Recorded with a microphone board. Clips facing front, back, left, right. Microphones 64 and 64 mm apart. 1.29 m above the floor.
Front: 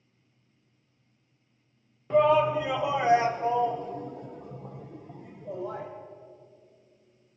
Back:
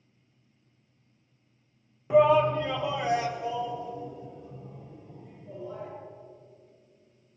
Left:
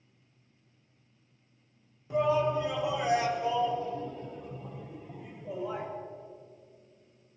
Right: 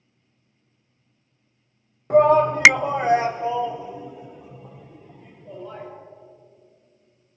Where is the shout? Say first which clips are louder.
Back 1 dB, right 11 dB; 100° right, 0.9 m; by 5.9 s 10° left, 1.7 m.